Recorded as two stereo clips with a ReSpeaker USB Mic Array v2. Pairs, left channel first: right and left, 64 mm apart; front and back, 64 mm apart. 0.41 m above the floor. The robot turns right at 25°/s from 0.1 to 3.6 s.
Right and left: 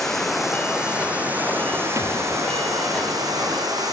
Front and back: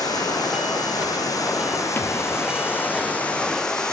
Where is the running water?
5° right, 5.5 m; by 3.9 s 80° left, 5.5 m.